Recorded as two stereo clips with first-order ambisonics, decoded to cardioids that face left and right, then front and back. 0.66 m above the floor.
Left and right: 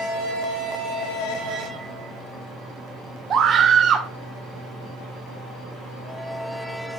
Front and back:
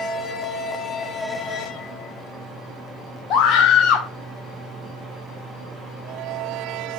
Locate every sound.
3.3 s a scream: 35° right, 1.3 m